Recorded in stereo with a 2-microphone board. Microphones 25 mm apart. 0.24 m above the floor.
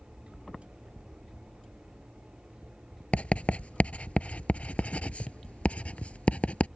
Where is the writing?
70° left (ahead or behind).